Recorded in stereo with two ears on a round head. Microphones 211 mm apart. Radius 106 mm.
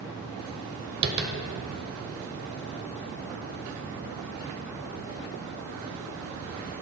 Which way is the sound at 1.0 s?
45° right (ahead or behind).